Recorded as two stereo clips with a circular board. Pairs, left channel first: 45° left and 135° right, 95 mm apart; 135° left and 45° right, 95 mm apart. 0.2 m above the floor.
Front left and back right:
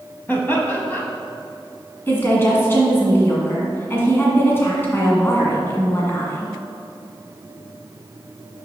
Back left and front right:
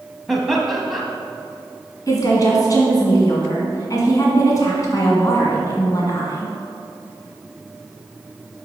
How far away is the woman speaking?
About 1.7 m.